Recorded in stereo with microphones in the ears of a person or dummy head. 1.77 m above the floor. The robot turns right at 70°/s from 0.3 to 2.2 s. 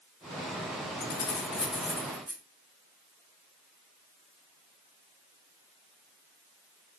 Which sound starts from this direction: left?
Keys jangling, at 1.0 s.